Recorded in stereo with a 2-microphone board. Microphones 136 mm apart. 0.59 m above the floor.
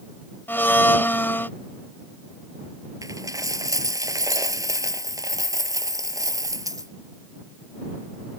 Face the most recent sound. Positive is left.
turn(degrees=-25)  # may be behind; listen again after turning